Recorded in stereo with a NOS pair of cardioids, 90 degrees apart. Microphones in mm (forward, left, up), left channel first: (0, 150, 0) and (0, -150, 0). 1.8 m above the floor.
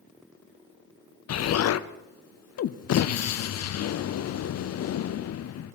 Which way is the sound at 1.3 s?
55° left.